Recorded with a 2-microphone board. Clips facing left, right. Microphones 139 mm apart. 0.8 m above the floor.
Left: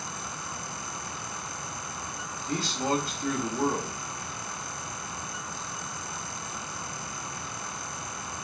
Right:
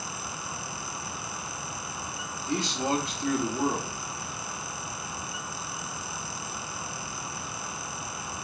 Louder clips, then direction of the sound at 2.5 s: Right 1 dB; 20° right (ahead or behind).